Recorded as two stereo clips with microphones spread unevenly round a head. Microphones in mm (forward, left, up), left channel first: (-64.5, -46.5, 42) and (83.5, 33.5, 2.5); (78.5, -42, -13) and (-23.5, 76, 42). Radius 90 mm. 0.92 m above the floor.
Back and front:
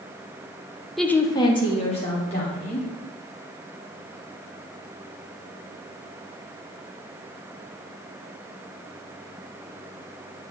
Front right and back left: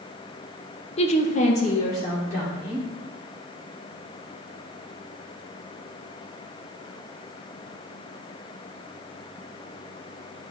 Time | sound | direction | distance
1.0 | a woman speaking | 50° right | 0.6 m